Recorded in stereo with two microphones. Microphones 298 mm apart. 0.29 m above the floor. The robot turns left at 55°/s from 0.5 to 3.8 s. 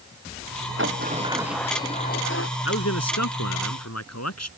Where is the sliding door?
140° right; by 2.5 s 130° left.